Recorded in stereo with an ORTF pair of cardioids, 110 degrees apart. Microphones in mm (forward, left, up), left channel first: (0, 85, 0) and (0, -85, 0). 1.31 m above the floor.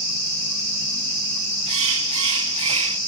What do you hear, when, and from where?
1.7 s a bird: 40° right, 2.5 m